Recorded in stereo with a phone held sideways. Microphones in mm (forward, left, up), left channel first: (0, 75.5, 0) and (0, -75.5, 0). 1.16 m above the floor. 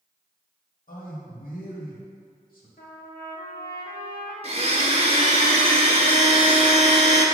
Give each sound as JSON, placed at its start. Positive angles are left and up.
{"t": 0.9, "sound": "a man speaking", "side_deg": 70, "distance_m": 2.0}
{"t": 2.8, "sound": "a trumpet", "side_deg": 80, "distance_m": 1.6}
{"t": 4.4, "sound": "a blender", "side_deg": -45, "distance_m": 0.9}